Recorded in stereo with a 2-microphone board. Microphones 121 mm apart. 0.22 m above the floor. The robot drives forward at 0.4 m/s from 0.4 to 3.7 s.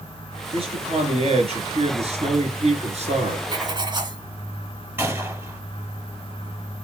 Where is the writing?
35° right (ahead or behind), 1.9 m; by 4.2 s 40° right (ahead or behind), 1.9 m.